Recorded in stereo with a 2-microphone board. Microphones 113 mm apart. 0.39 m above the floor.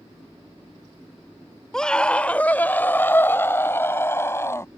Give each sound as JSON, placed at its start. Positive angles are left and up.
{"t": 1.7, "sound": "a scream", "side_deg": 5}